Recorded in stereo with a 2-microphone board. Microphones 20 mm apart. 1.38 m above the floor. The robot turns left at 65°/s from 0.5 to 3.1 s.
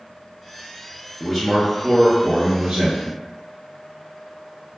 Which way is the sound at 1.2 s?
5° left.